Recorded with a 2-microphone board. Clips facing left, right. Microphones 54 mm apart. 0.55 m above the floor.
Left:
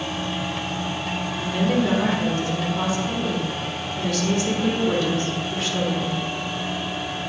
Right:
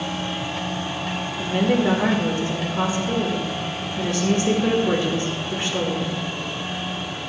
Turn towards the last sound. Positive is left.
turn(degrees=-30)  # may be behind; listen again after turning